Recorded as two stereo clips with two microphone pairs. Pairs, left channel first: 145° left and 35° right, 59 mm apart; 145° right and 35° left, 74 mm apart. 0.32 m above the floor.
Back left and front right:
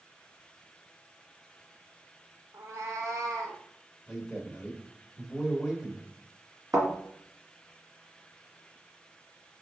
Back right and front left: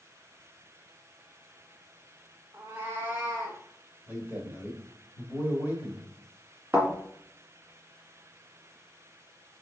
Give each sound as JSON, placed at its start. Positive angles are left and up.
{"t": 2.5, "sound": "a cat meowing", "azimuth_deg": -25, "distance_m": 0.7}
{"t": 4.1, "sound": "a man speaking", "azimuth_deg": 40, "distance_m": 1.2}
{"t": 6.7, "sound": "a thud", "azimuth_deg": -30, "distance_m": 1.7}